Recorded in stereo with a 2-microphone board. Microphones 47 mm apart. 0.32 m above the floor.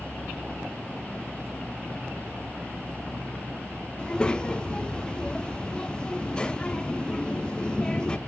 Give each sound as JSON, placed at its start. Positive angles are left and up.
{"t": 4.0, "sound": "a child speaking", "side_deg": 20, "distance_m": 0.8}